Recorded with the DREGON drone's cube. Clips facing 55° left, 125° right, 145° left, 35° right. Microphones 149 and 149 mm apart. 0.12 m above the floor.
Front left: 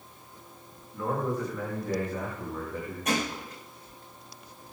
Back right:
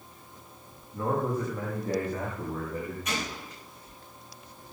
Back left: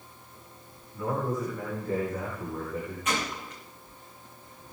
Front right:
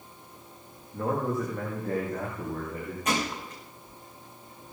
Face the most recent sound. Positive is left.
turn(degrees=15)